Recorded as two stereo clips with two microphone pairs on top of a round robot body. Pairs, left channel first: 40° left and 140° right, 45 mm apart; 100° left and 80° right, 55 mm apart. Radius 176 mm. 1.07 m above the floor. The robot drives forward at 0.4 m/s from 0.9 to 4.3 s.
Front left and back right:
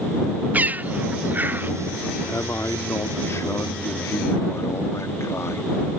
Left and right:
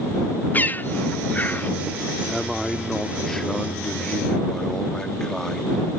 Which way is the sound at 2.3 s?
20° left.